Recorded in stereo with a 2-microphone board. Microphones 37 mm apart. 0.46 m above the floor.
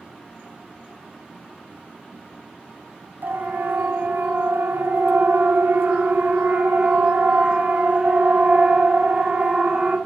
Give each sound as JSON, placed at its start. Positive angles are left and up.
{"t": 3.2, "sound": "a siren", "side_deg": -70, "distance_m": 4.5}